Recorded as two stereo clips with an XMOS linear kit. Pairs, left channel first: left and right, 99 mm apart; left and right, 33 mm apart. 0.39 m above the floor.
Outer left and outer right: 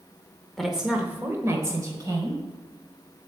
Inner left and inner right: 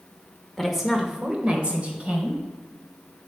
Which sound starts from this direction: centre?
A woman speaking, at 0.6 s.